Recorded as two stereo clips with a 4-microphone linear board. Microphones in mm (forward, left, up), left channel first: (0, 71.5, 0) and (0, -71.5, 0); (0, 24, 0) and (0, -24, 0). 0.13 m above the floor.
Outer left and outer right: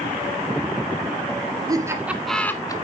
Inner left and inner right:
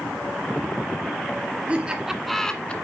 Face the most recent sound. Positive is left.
turn(degrees=25)  # may be behind; listen again after turning